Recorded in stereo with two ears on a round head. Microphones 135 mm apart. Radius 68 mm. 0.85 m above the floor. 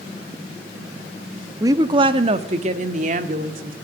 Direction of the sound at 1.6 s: 25° right (ahead or behind).